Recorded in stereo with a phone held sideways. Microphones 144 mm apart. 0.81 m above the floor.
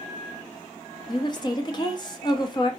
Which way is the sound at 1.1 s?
30° left (ahead or behind).